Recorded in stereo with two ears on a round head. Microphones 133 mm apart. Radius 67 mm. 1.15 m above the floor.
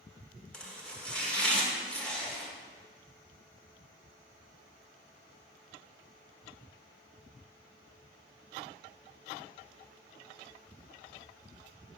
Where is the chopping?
5° left (ahead or behind), 1.8 m.